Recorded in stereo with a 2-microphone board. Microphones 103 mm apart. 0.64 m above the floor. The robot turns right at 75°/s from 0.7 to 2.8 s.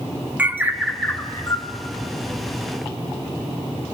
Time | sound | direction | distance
0.4 | a bird | 15° right | 1.1 m